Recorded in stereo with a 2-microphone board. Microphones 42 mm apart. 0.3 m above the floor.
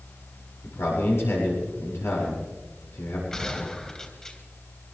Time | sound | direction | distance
0.6 | a man speaking | 80° left | 8 m
3.3 | a gunshot | 20° left (ahead or behind) | 3.5 m